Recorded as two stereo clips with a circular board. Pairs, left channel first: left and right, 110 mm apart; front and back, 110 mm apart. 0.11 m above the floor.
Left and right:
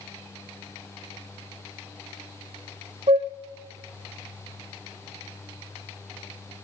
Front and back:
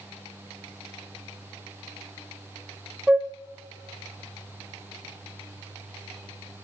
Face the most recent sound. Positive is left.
turn(degrees=-100)